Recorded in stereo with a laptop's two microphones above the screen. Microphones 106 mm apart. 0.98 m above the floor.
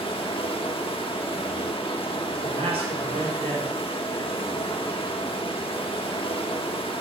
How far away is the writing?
No writing in this recording.